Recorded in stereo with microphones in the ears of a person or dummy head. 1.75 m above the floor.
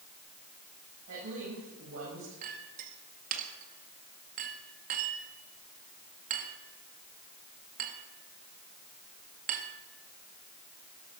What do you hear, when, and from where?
1.1 s a woman speaking: 75° right (ahead or behind), 8 m
2.4 s a clink: 45° right (ahead or behind), 1.9 m